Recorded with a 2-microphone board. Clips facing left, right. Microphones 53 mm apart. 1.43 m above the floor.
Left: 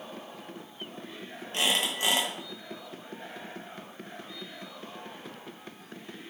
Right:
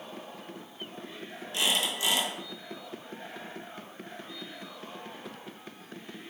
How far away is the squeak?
About 0.7 m.